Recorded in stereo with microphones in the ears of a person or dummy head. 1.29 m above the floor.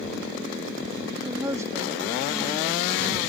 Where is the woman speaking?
15° right (ahead or behind).